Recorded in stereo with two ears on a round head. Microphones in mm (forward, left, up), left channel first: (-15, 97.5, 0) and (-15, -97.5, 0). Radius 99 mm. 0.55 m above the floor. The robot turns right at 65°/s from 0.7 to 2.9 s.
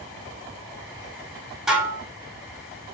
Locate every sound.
1.7 s dishes clattering: centre (ahead or behind), 0.6 m; by 2.0 s 20° right (ahead or behind), 0.6 m